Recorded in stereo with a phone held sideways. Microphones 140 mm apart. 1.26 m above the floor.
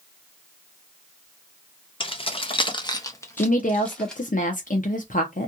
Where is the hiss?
I don't hear a hiss.